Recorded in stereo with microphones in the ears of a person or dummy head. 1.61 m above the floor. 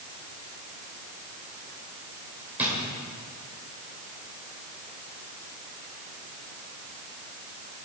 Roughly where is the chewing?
No chewing in this recording.